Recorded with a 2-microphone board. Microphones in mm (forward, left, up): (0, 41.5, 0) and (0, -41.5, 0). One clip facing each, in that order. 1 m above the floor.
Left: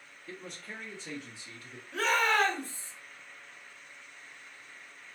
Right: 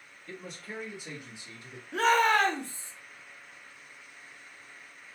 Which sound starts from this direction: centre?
A man speaking, at 0.3 s.